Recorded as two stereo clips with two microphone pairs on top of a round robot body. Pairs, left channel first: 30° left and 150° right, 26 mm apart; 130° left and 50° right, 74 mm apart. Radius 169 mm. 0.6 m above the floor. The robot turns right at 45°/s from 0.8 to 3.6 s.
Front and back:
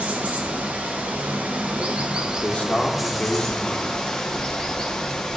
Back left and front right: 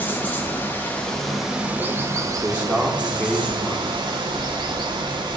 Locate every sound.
0.0 s running water: 165° right, 0.7 m; by 5.4 s 35° right, 0.7 m
2.4 s a man speaking: 15° left, 0.8 m; by 3.9 s 70° left, 0.8 m